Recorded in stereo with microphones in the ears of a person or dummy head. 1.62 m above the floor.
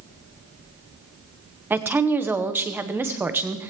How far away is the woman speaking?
About 1.1 m.